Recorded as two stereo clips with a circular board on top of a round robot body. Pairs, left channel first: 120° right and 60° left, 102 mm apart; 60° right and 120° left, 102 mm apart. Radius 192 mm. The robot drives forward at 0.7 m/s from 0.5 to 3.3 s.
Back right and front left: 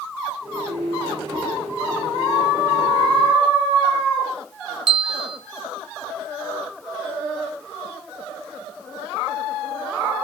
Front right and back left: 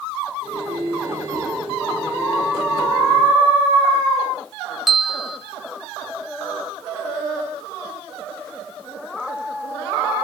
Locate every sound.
4.9 s a bell: 30° left, 1.7 m